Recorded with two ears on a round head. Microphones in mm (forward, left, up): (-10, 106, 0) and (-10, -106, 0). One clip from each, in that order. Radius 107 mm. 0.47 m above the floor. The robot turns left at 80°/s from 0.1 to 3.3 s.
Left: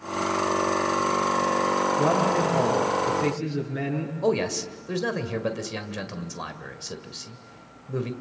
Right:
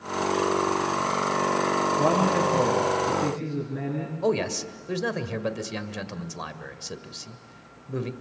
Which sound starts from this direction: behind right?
A man speaking, at 2.0 s.